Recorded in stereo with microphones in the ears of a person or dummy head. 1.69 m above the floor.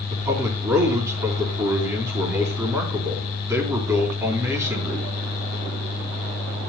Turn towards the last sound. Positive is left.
turn(degrees=-15)  # may be behind; listen again after turning